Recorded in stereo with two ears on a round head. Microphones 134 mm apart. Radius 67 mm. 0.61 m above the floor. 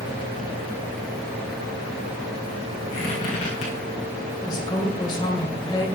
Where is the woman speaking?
30° left (ahead or behind), 2.5 m.